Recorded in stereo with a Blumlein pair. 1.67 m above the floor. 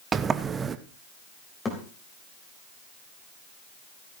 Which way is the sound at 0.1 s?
20° right.